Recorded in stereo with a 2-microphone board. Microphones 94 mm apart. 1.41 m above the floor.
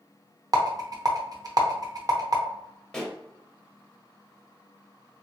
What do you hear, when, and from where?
0.5 s a rattle: 45° right (ahead or behind), 0.7 m
2.9 s a pop: 10° left (ahead or behind), 0.8 m